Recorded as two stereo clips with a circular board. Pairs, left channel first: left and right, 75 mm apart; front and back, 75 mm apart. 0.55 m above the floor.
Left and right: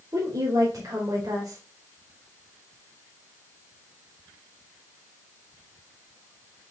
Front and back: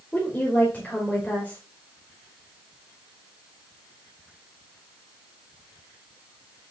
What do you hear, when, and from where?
0.1 s a woman speaking: 65° right, 2.5 m